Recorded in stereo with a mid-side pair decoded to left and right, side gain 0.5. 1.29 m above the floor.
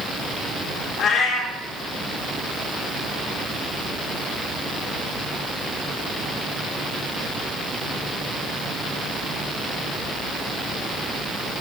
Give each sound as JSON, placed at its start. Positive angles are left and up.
{"t": 1.0, "sound": "a cat meowing", "azimuth_deg": 60, "distance_m": 2.5}